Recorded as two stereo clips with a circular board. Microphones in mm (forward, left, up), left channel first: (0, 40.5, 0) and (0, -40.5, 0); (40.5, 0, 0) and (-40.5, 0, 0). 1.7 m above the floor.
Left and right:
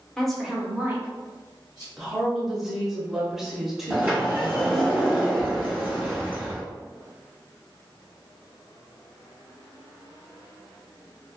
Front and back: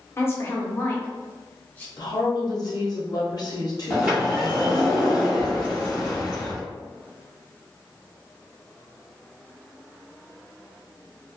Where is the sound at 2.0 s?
5° right, 0.6 m.